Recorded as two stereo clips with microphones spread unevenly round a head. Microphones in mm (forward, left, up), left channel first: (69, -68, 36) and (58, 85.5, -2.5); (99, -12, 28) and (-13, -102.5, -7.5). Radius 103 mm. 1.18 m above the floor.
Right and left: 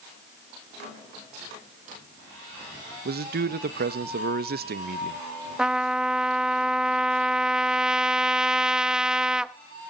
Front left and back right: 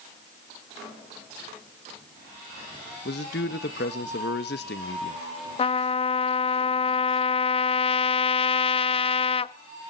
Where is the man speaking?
75° left, 1.0 m.